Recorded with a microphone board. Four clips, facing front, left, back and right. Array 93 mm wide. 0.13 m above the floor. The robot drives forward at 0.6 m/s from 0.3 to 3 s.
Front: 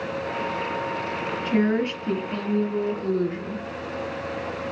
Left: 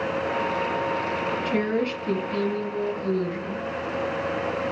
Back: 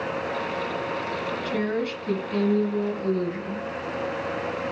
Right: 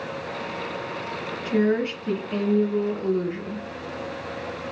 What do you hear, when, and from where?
1.4 s a woman speaking: 25° right, 2 m; by 3.6 s 60° right, 1.7 m